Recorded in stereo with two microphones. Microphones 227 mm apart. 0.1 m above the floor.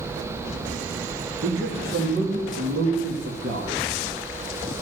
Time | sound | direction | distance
1.4 | a man speaking | 65° right (ahead or behind) | 3.5 m